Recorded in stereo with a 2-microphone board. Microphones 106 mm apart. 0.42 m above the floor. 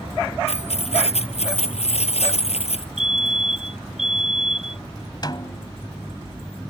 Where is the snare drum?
40° left (ahead or behind).